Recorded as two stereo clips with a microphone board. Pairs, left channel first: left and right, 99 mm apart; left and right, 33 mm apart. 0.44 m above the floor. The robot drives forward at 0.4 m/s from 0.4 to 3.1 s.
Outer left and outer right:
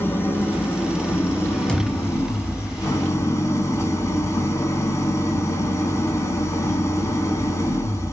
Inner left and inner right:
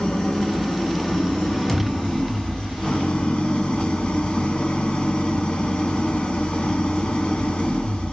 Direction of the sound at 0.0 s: 20° left (ahead or behind).